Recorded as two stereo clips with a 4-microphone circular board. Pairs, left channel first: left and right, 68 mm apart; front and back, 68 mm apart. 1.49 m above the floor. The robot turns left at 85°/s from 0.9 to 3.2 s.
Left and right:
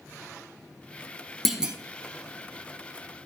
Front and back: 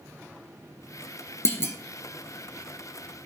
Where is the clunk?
Straight ahead, 0.8 m; by 1.8 s 25° right, 0.8 m.